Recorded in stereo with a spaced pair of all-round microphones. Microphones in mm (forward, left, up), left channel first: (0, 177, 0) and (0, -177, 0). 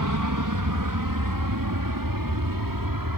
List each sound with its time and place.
0.0 s an aircraft: 60° right (ahead or behind); by 3.2 s 70° right (ahead or behind)